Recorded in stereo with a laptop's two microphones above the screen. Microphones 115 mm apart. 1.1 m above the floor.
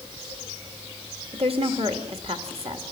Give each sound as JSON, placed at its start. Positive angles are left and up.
{"t": 1.3, "sound": "a woman speaking", "side_deg": -65, "distance_m": 2.0}